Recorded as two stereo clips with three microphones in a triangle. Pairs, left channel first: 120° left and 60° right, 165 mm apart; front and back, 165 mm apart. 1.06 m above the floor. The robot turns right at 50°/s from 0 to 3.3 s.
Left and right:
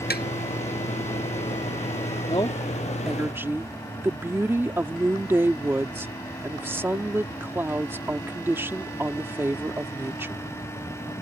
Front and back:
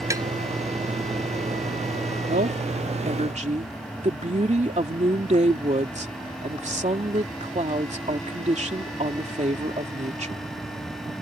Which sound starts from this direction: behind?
A woman speaking, at 2.3 s.